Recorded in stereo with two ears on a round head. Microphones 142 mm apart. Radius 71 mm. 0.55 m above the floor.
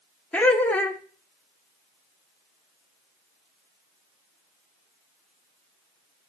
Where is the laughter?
10° left (ahead or behind), 0.9 m.